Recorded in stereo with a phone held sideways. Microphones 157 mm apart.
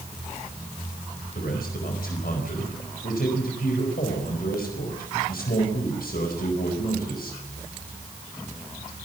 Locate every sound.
1.4 s a man speaking: 70° left (ahead or behind), 4.5 m